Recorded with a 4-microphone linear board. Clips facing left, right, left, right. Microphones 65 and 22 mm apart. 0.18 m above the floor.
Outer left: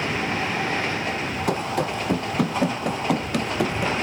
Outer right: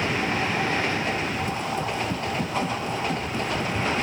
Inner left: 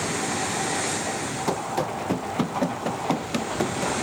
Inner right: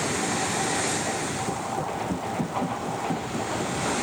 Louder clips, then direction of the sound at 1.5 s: Outer left 3 dB, inner left 3 dB; 75° left (ahead or behind).